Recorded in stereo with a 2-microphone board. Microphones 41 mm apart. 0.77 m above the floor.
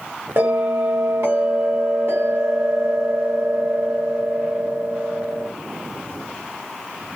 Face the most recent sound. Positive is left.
turn(degrees=-75)  # may be behind; listen again after turning